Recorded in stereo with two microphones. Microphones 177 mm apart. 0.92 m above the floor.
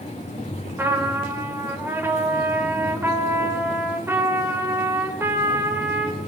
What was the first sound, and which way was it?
A trumpet, 10° right (ahead or behind).